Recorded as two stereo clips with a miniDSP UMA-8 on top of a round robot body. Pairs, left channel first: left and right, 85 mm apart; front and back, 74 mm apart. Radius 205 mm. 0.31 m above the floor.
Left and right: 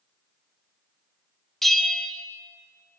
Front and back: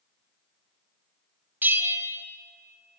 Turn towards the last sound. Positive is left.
turn(degrees=175)